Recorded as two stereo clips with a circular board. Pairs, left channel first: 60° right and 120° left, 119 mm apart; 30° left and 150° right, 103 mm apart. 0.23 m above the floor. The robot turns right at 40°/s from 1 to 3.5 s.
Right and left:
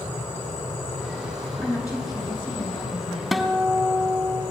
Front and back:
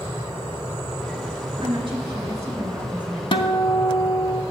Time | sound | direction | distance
1.6 | a woman speaking | 130° right | 3 m
3.3 | a guitar | 30° left | 0.7 m